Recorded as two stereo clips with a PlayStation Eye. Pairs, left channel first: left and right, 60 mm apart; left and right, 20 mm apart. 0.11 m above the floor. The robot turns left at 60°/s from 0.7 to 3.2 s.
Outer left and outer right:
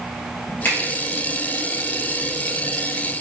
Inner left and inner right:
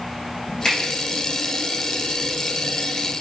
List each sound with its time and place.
0.7 s a finger snap: 30° left (ahead or behind), 2.0 m